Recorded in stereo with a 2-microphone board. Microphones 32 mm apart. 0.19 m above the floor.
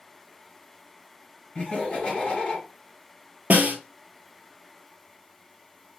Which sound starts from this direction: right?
A snare drum, at 3.5 s.